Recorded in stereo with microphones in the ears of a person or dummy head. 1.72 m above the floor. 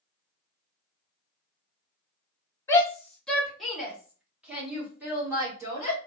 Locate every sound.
2.7 s a shout: 20° left (ahead or behind), 0.8 m; by 6.0 s 15° right (ahead or behind), 2.5 m